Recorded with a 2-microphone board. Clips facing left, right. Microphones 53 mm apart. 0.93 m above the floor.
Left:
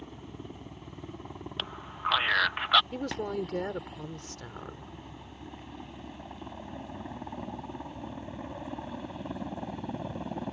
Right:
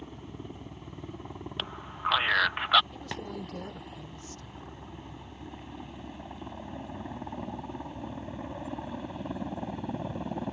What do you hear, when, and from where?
0.0 s a helicopter: centre (ahead or behind); by 10.5 s 5° right (ahead or behind)
1.6 s a man speaking: 5° right (ahead or behind)
2.9 s a woman speaking: 80° left